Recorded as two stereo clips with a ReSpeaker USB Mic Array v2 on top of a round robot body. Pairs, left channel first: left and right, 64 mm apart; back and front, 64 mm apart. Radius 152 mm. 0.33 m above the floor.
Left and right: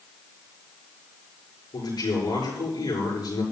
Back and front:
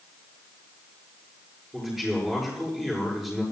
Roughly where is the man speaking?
Left.